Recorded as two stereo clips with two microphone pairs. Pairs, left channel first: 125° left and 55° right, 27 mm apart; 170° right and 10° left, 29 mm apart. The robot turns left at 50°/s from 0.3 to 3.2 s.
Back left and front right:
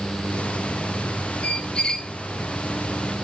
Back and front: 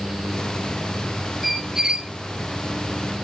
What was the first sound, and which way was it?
A squeak, 95° left.